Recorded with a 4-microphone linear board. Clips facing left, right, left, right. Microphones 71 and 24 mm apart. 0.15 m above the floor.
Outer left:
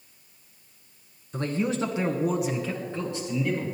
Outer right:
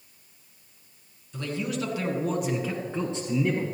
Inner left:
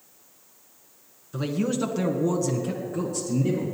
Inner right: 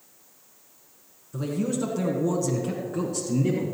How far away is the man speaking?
About 2 m.